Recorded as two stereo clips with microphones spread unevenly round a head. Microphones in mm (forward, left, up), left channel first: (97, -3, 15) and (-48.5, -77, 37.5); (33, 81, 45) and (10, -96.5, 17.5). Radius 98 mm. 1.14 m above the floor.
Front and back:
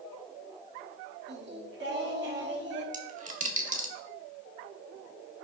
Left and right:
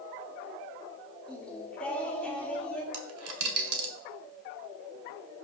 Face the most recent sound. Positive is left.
turn(degrees=-115)